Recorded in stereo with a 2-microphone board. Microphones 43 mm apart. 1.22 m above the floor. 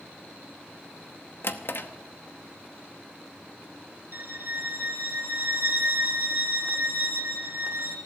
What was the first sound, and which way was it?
A drawer, 55° left (ahead or behind).